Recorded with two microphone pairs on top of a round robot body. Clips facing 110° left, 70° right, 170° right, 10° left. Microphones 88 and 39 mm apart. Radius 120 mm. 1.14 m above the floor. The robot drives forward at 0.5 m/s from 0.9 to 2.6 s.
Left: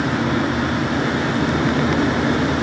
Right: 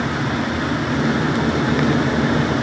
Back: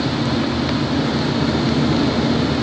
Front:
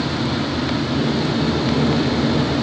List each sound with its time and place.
Only background noise.